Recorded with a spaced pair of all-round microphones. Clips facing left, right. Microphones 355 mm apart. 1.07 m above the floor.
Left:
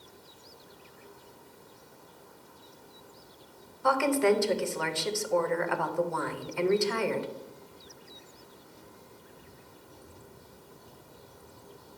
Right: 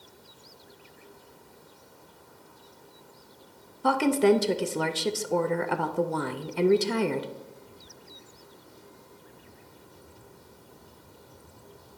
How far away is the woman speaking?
About 0.5 m.